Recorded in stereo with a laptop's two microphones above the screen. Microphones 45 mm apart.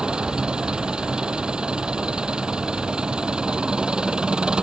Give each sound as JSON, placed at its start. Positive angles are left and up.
{"t": 0.0, "sound": "an engine running", "side_deg": -20}